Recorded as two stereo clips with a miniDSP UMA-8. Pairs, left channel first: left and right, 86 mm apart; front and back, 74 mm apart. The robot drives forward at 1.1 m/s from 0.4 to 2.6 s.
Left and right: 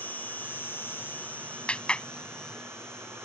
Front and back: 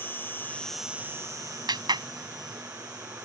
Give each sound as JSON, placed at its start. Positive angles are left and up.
{"t": 0.0, "sound": "an insect", "azimuth_deg": 35}
{"t": 1.7, "sound": "a clap", "azimuth_deg": 170}